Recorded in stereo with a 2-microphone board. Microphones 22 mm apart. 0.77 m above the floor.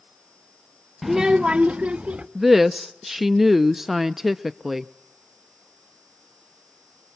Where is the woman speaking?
10° right (ahead or behind), 0.5 m.